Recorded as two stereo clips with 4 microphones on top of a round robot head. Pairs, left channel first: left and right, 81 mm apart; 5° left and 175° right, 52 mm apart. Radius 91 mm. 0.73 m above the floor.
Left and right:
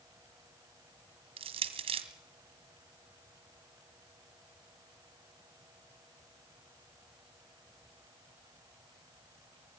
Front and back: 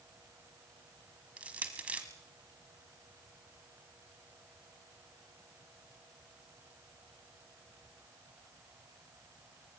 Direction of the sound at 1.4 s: 105° right.